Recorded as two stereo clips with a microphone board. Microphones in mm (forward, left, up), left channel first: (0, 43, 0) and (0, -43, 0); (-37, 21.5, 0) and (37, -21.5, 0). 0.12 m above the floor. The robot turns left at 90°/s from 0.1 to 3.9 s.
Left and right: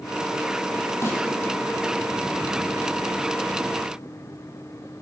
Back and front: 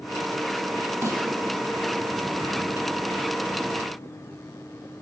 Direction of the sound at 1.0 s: 30° left.